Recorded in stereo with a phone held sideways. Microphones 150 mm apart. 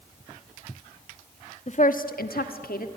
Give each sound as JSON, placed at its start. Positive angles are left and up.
{"t": 1.7, "sound": "a woman speaking", "side_deg": 50, "distance_m": 1.4}